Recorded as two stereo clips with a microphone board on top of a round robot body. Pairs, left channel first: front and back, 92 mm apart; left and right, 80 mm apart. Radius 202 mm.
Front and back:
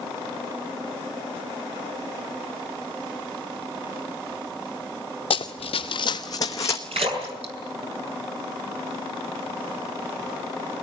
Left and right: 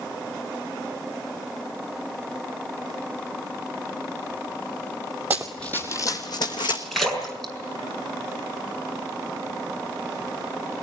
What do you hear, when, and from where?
5.3 s running footsteps: 20° right, 0.8 m; by 6.8 s 60° left, 1.7 m
6.9 s a splash: 175° left, 6.5 m